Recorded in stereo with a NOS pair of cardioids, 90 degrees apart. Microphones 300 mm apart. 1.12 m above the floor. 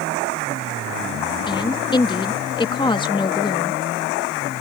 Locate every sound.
1.4 s a woman speaking: 15° left